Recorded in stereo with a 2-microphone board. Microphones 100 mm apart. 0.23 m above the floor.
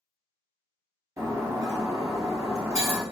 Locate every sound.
1.2 s breaking glass: 30° right (ahead or behind), 1.6 m